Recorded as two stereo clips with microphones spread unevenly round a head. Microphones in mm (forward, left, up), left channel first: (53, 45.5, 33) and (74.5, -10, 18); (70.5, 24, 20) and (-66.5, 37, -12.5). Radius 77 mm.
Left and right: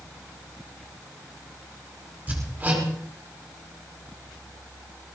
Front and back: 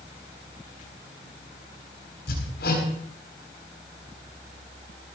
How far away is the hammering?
About 8.5 m.